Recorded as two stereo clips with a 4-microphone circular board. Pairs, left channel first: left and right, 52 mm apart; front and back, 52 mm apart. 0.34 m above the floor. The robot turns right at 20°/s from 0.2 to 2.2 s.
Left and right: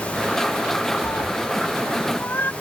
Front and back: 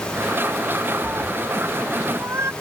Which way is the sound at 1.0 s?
120° left.